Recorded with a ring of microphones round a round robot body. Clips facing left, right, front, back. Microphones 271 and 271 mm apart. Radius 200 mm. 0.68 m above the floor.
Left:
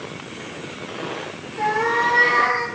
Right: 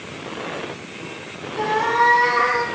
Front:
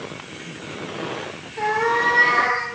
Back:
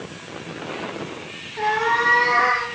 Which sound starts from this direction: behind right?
A cat meowing, at 1.6 s.